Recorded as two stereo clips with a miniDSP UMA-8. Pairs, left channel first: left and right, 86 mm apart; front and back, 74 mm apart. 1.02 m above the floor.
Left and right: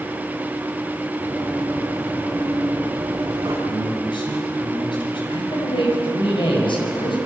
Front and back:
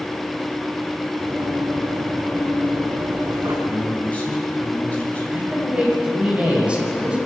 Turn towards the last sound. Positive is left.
turn(degrees=105)